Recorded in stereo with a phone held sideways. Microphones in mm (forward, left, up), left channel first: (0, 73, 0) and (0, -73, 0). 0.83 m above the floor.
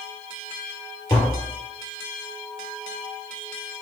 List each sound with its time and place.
1.1 s tapping: 20° left (ahead or behind), 2.5 m